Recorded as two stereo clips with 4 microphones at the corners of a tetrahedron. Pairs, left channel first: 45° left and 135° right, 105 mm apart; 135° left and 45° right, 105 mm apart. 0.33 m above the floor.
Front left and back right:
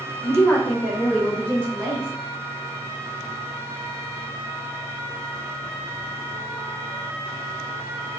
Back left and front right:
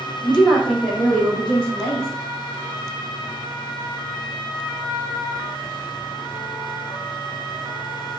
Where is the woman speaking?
45° left, 1.0 m; by 2.1 s 150° right, 1.1 m.